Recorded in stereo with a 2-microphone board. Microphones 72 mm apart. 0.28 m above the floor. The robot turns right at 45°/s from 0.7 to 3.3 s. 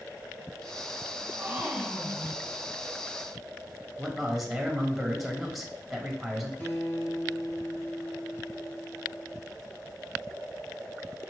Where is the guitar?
25° left (ahead or behind), 1.9 m.